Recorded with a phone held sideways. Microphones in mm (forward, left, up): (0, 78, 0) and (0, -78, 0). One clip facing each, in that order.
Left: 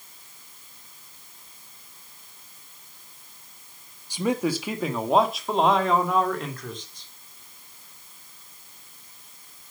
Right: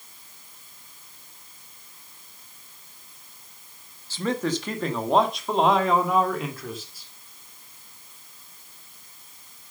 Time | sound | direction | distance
4.1 | a man speaking | 15° left (ahead or behind) | 1.5 m